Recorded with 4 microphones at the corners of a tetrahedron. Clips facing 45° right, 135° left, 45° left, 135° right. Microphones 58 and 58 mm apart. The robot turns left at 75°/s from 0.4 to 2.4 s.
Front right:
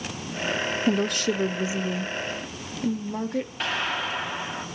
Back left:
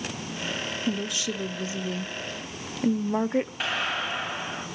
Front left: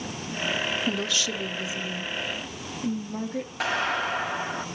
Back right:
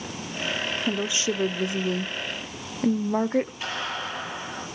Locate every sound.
0.9 s a woman speaking: 50° right, 0.7 m; by 3.5 s 165° right, 0.7 m
3.6 s a clap: 50° left, 9.5 m